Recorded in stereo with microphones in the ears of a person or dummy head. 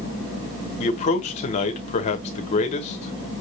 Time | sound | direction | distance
0.8 | a man speaking | 25° left (ahead or behind) | 1.1 m